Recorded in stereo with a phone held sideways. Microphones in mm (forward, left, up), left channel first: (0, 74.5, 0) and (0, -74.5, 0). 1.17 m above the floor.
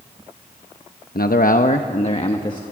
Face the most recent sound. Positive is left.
turn(degrees=30)  # may be behind; listen again after turning